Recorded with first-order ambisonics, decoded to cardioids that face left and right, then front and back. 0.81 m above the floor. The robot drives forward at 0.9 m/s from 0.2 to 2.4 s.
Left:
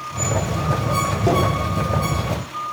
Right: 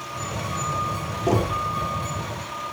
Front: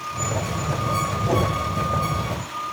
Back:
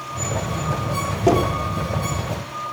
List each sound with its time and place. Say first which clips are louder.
1.3 s knocking: left 2 dB, back 7 dB; 155° left, 7 m; by 1.6 s 160° left, 7.5 m